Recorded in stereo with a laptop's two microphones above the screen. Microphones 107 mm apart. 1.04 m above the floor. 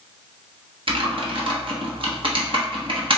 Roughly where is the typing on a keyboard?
Right.